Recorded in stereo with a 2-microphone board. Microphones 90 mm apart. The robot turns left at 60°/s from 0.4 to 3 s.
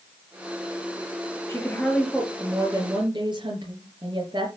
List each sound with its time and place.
1.5 s a woman speaking: 35° left, 5 m; by 4.5 s 60° right, 5 m